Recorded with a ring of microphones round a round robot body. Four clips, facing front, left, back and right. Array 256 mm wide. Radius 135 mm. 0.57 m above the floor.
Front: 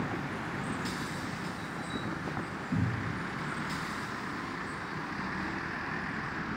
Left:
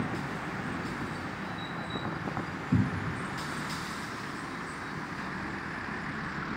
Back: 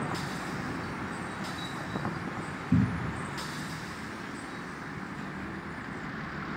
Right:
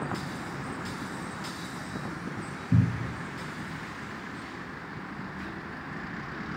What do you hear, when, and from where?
2.7 s a cupboard door: 115° right, 2 m